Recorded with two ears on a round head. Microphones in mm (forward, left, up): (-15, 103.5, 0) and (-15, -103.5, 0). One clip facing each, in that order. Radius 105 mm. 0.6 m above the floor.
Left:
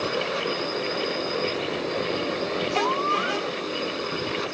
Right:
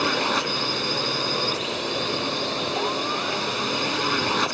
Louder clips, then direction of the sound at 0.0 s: Right 1 dB; 75° right (ahead or behind).